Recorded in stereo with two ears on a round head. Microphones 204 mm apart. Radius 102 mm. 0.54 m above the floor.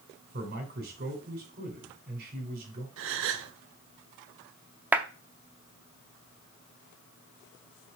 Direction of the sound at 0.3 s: 45° right (ahead or behind).